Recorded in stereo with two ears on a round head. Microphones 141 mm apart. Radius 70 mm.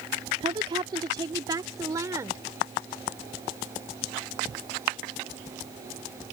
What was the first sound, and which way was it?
A woman speaking, 35° right (ahead or behind).